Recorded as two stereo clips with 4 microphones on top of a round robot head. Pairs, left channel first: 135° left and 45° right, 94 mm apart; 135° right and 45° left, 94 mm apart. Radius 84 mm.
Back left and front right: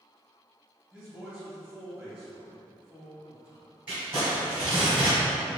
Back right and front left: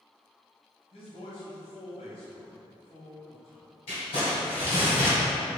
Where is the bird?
I don't hear a bird.